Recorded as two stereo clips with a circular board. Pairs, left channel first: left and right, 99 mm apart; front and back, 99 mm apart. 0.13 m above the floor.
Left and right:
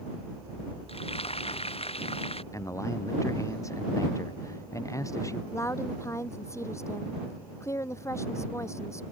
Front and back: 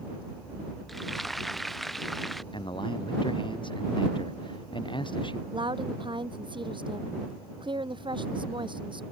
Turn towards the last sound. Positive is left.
turn(degrees=150)